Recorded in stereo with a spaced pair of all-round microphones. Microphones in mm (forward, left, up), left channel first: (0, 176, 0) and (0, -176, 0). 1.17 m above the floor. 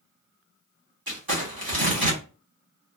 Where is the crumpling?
80° right, 1.5 m.